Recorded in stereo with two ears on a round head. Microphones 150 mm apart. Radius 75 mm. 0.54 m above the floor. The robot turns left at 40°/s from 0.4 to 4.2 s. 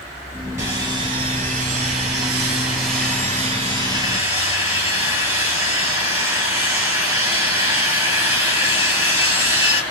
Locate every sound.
0.6 s sawing: 20° right, 2.5 m; by 9.8 s 165° right, 2.5 m